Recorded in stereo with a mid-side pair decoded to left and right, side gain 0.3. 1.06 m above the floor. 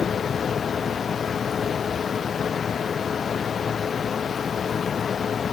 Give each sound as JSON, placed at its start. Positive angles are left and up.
{"t": 0.0, "sound": "a fan", "azimuth_deg": 60}